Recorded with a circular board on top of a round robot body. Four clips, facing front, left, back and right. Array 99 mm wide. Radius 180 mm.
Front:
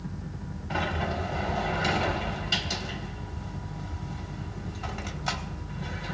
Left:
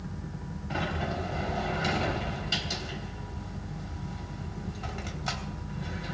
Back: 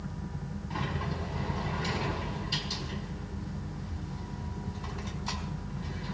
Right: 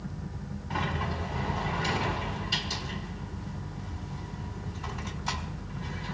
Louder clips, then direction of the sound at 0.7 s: Even, front 6 dB; 25° left.